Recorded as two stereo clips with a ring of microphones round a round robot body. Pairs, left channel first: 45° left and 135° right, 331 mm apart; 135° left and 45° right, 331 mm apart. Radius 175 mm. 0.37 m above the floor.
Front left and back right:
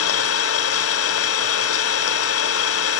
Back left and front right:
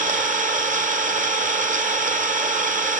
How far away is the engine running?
About 1.1 m.